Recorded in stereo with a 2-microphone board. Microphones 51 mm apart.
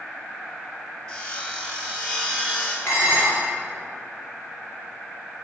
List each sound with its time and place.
1.1 s sawing: 20° left (ahead or behind), 1.0 m
2.9 s dishes clattering: 55° left (ahead or behind), 1.4 m